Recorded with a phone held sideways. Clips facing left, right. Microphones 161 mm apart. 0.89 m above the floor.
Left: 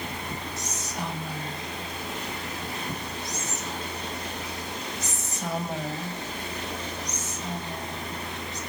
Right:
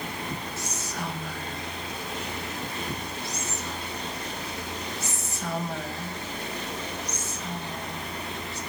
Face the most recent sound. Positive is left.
turn(degrees=15)  # may be behind; listen again after turning